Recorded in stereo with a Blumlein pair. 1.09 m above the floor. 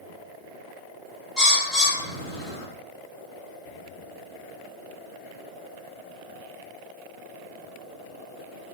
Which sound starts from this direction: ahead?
A bird, at 1.4 s.